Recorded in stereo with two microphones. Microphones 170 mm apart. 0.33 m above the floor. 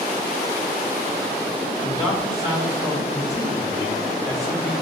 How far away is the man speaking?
About 1.6 m.